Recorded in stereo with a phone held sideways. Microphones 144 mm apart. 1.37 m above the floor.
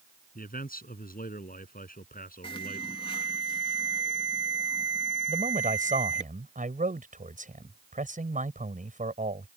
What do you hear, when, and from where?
0.3 s a man speaking: 85° left; by 3.0 s 80° left
2.4 s an alarm: 35° left (ahead or behind)
5.3 s a man speaking: 65° right (ahead or behind)